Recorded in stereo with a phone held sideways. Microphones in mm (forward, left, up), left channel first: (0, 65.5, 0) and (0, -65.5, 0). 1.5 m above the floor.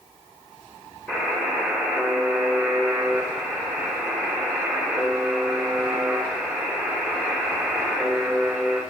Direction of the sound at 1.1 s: 5° left (ahead or behind).